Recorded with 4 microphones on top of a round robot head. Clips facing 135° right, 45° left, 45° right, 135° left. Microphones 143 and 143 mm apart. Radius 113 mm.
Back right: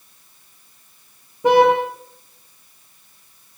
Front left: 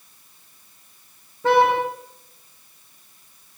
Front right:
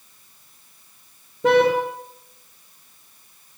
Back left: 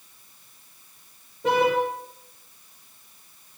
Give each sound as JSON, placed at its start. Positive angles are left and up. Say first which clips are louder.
{"t": 1.4, "sound": "a car horn", "louder": "back right 4 dB, front right 5 dB", "azimuth_deg": -60, "distance_m": 6.5}